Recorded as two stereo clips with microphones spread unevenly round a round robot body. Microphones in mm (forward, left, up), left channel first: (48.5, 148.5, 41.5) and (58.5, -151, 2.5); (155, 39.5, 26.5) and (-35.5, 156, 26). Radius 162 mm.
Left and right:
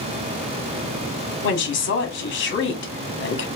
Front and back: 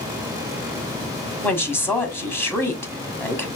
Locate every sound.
1.4 s a woman speaking: 45° left, 1.5 m